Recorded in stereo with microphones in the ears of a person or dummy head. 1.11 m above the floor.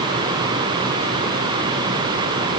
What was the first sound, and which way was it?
Only background noise.